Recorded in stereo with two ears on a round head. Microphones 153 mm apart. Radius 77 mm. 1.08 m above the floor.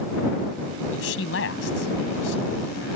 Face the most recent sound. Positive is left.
turn(degrees=90)